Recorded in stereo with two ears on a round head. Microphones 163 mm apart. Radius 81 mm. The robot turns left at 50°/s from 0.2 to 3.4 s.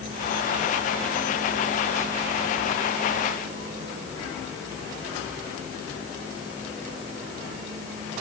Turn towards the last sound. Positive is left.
No sound to turn to.